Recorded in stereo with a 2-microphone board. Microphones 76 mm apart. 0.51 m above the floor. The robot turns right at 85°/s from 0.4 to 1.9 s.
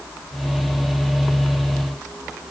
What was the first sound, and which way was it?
Only background noise.